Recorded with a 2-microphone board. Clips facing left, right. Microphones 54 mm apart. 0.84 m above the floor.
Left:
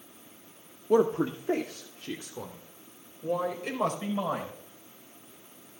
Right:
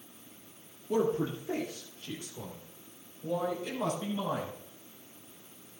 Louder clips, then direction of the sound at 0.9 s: Left 5 dB; 60° left (ahead or behind).